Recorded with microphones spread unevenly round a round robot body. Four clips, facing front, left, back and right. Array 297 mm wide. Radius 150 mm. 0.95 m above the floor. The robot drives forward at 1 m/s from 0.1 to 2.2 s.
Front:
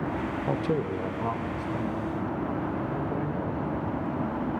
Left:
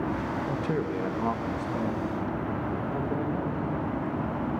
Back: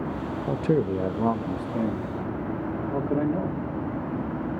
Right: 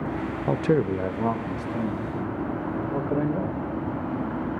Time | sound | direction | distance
0.5 | a man speaking | 100° right | 0.5 m